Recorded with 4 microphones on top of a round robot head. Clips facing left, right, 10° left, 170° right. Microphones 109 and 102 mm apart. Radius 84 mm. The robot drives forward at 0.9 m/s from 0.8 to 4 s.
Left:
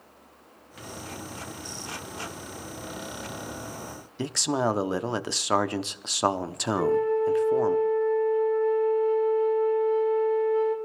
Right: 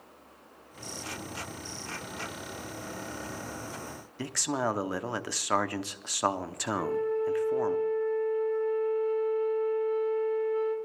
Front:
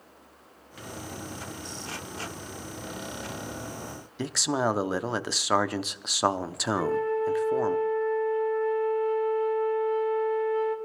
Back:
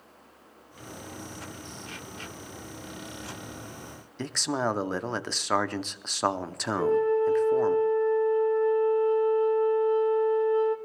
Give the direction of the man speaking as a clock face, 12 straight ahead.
9 o'clock.